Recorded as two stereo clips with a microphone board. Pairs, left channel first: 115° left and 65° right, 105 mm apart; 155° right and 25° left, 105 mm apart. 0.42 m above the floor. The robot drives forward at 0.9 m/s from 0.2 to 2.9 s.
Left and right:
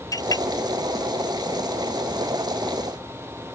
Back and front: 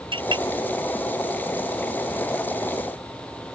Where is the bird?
No bird in this recording.